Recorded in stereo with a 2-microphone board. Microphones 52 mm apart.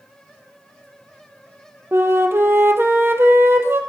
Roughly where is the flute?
Right.